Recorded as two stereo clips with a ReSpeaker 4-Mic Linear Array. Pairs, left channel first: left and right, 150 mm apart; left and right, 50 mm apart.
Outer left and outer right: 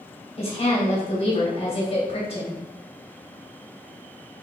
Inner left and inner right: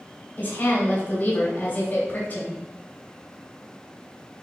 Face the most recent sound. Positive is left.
turn(degrees=40)  # may be behind; listen again after turning